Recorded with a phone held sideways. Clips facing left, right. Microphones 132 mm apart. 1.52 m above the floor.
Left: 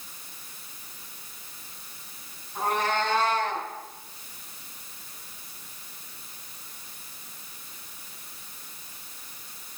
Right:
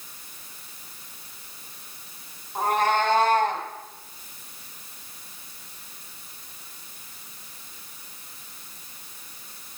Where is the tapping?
I don't hear tapping.